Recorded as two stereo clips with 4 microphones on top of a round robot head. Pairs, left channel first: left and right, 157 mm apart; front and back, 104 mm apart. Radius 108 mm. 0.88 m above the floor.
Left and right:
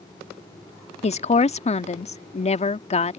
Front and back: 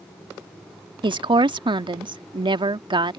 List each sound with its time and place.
1.0 s a woman speaking: 140° left